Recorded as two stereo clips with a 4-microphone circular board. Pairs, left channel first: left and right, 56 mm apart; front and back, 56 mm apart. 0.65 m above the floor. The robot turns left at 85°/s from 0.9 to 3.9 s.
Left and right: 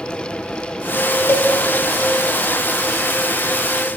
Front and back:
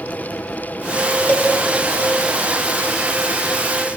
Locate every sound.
1.3 s a cowbell: 50° left, 1.4 m; by 1.5 s 35° left, 1.4 m